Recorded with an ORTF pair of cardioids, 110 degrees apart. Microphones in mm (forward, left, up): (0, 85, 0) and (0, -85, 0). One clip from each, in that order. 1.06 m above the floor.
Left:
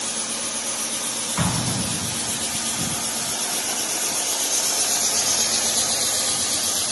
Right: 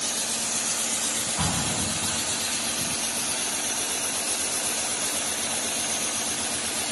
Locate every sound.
1.4 s an explosion: 55° left, 2 m